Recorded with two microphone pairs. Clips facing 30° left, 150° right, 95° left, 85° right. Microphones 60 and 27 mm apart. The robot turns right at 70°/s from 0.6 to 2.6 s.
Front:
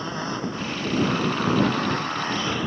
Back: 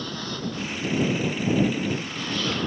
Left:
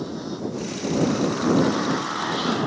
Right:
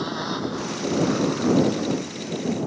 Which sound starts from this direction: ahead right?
A motorcycle, at 0.0 s.